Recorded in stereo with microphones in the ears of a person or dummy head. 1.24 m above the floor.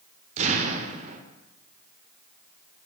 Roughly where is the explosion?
Right.